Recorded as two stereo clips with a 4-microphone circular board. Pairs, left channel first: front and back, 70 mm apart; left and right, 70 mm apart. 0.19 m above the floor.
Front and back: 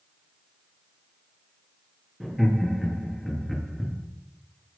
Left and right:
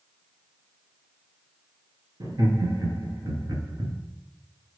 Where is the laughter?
90° right, 4 m; by 4.0 s 85° right, 3.5 m.